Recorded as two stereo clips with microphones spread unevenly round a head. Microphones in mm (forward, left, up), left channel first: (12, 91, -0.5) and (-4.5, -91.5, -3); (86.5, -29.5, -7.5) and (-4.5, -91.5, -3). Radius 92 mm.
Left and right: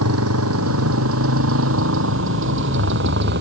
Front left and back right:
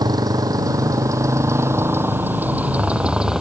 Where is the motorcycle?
95° right; by 3.4 s 60° right.